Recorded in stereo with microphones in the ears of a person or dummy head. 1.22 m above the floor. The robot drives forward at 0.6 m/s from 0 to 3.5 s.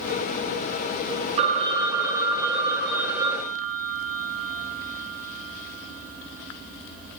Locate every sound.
1.4 s a phone ringing: 35° right (ahead or behind), 0.6 m; by 7.2 s 10° right (ahead or behind), 1.8 m